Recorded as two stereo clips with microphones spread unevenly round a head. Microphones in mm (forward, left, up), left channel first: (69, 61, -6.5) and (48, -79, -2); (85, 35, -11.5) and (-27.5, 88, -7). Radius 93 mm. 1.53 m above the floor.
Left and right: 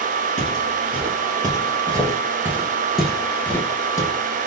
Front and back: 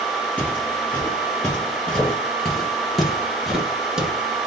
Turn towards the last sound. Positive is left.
turn(degrees=90)